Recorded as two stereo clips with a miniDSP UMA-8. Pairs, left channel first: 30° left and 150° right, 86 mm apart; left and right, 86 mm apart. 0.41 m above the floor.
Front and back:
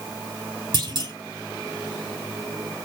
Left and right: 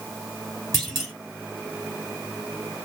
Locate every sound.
0.7 s a clunk: 175° left, 1.0 m